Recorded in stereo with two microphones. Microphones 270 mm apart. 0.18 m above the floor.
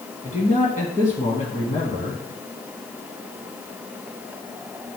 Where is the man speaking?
25° left (ahead or behind), 1.8 m.